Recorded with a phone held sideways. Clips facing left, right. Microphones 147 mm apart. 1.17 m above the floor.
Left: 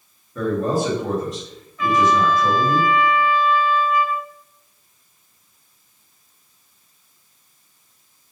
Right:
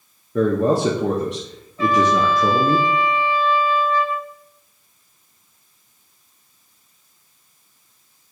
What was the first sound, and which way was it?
A man speaking, 70° right (ahead or behind).